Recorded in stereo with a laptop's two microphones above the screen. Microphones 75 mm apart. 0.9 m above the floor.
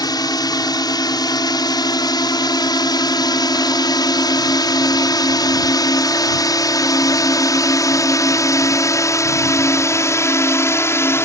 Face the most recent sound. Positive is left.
turn(degrees=30)  # may be behind; listen again after turning